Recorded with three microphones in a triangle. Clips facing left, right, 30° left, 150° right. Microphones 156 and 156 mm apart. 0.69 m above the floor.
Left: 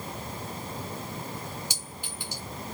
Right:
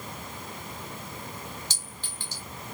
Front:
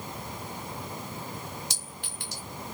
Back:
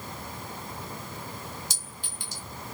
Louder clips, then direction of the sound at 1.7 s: Left 3 dB, front 1 dB; 15° left.